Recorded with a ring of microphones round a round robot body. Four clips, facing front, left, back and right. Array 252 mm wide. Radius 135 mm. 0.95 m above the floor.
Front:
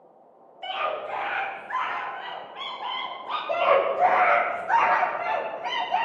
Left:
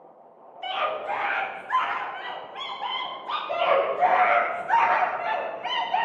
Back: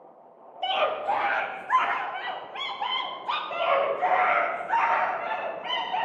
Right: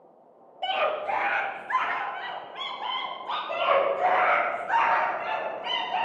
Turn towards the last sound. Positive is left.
turn(degrees=20)